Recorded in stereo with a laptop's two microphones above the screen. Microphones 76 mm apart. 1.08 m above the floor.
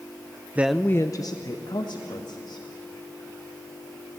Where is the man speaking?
20° right (ahead or behind), 0.5 m; by 2.7 s 80° left, 2.5 m.